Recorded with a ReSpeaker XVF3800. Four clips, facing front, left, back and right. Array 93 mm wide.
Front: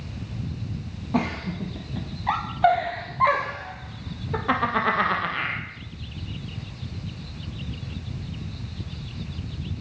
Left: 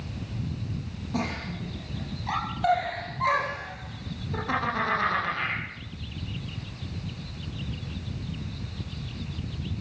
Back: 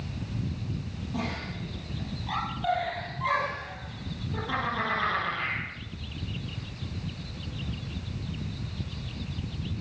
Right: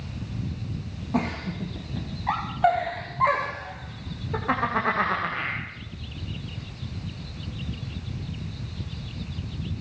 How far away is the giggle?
About 5.5 m.